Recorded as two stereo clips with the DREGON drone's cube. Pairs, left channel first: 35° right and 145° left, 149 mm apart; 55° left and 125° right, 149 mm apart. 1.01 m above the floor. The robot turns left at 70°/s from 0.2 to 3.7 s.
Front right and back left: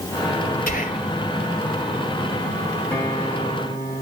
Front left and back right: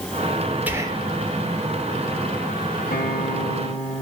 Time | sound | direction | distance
0.7 | whispering | 45° right | 3 m
2.9 | a guitar | 45° left | 4.5 m